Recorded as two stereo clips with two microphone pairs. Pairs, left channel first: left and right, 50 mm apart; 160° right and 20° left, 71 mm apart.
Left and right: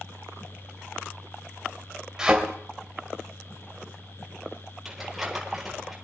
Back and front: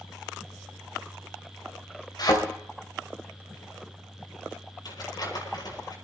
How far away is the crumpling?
About 7.5 m.